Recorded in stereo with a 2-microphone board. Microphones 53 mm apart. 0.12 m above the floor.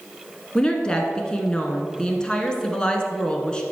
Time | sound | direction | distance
0.6 | a woman speaking | 15° left (ahead or behind) | 1.1 m